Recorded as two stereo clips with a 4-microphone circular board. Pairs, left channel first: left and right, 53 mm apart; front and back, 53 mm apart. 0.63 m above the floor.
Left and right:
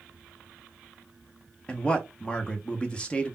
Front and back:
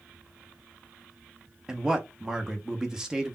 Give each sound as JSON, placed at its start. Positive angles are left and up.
{"t": 1.7, "sound": "a man speaking", "azimuth_deg": 115, "distance_m": 0.6}